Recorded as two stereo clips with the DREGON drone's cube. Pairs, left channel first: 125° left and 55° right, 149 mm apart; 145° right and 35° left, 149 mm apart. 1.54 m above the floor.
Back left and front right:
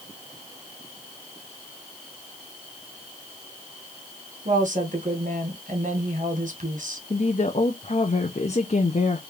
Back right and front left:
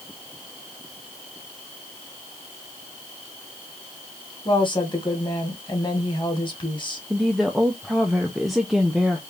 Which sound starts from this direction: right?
A woman speaking, at 4.5 s.